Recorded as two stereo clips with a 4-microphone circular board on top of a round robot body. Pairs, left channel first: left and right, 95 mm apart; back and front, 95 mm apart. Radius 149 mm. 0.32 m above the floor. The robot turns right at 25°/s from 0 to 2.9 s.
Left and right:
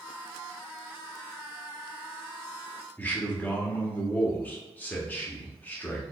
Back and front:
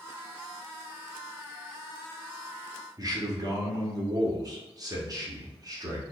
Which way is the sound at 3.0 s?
25° left.